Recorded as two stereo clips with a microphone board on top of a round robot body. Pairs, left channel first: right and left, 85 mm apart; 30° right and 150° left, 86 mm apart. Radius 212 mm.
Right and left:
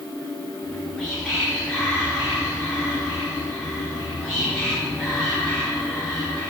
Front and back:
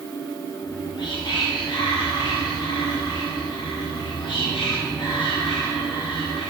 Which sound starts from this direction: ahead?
Whispering, at 0.6 s.